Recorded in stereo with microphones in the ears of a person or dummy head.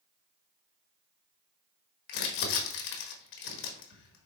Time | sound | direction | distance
2.1 | crumpling | 55° left (ahead or behind) | 1.3 m